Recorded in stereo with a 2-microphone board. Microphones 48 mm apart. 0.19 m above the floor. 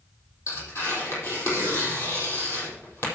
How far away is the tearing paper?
About 5 m.